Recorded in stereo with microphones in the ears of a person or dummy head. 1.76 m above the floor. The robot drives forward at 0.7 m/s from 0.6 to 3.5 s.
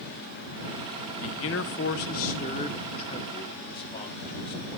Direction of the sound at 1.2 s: 70° left (ahead or behind).